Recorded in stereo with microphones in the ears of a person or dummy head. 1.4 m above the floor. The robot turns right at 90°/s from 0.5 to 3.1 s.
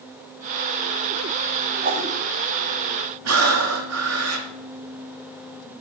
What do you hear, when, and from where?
1.8 s a whoosh: 50° right (ahead or behind), 5.5 m; by 2.1 s 80° right, 5.5 m
3.2 s breathing: 85° right, 3 m